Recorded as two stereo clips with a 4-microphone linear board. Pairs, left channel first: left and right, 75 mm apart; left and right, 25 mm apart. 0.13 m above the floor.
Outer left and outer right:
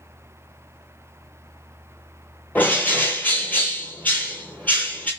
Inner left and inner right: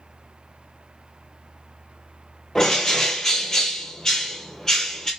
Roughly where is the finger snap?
I don't hear a finger snap.